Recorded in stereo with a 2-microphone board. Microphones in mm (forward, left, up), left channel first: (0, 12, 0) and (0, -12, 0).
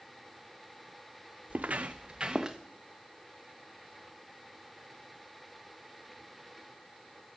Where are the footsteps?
85° right, 0.8 m; by 2.6 s 20° right (ahead or behind), 1.2 m.